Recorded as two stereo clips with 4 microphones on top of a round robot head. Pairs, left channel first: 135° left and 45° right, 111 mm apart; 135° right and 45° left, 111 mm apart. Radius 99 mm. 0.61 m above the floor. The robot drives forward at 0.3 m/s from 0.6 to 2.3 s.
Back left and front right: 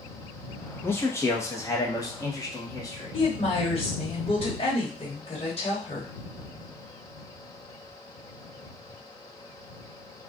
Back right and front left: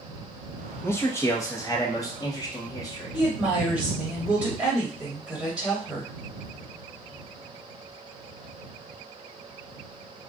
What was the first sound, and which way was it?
A man speaking, straight behind.